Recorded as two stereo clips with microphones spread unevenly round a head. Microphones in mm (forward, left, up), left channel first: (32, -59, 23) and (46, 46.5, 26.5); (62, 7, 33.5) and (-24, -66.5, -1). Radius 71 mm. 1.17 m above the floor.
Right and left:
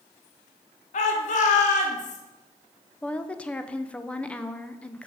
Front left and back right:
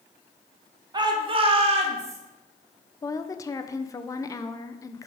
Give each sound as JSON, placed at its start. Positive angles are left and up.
{"t": 0.9, "sound": "a shout", "azimuth_deg": -90, "distance_m": 1.0}
{"t": 3.0, "sound": "a woman speaking", "azimuth_deg": -30, "distance_m": 0.5}